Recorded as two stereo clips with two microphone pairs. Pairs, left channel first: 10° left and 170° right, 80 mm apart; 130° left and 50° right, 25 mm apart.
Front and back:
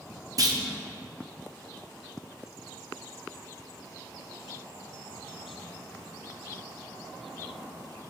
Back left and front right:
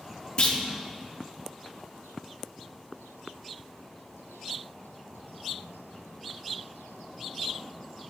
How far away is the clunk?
About 0.7 m.